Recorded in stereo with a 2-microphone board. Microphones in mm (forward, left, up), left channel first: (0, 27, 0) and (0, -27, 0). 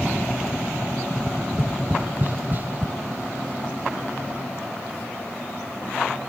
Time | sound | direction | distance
1.1 | tapping | 40° right (ahead or behind) | 0.8 m